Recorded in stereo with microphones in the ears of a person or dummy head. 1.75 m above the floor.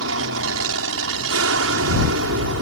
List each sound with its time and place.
0.0 s an aircraft: 75° right (ahead or behind)